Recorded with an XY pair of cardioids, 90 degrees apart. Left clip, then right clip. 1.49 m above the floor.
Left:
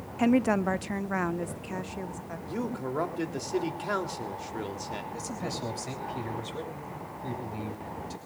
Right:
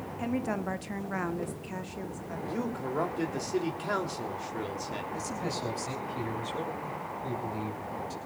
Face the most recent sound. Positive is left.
turn(degrees=15)